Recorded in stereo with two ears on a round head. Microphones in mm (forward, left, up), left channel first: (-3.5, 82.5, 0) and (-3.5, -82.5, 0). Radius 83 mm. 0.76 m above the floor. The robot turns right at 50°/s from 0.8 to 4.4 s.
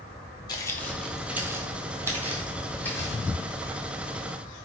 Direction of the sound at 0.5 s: 25° left (ahead or behind).